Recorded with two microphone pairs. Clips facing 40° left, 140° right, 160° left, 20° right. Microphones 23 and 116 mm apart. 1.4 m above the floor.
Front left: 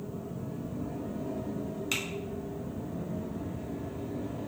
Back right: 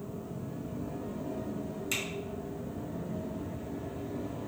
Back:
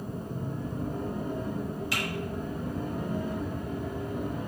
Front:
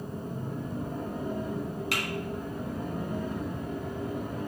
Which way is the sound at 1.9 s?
20° right.